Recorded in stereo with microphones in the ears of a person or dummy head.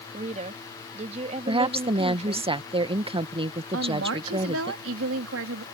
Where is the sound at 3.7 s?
75° right (ahead or behind).